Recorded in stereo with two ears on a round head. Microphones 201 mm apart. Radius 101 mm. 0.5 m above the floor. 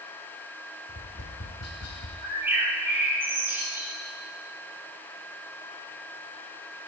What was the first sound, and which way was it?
Tapping, 75° left (ahead or behind).